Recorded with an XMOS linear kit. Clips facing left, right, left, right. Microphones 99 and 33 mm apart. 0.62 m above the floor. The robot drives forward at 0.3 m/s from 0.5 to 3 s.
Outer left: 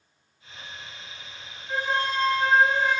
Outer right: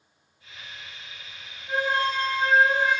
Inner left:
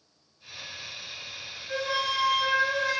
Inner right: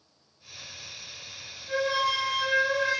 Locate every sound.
1.7 s a flute: 10° right (ahead or behind), 1.8 m; by 3.0 s 5° right (ahead or behind), 2 m